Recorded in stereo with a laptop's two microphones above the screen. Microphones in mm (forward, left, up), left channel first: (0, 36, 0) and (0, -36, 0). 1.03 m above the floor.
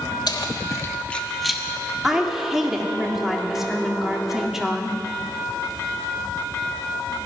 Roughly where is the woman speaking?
Centre.